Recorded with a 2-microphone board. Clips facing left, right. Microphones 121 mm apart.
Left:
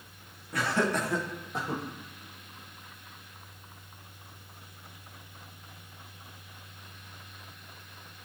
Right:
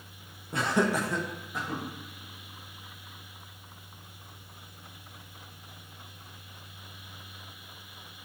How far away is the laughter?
About 0.6 m.